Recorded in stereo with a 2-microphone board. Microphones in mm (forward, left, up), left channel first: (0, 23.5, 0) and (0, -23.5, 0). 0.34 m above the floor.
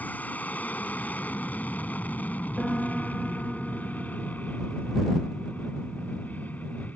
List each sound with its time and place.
0.0 s an aircraft: 35° left (ahead or behind)
2.6 s a piano: 15° left (ahead or behind)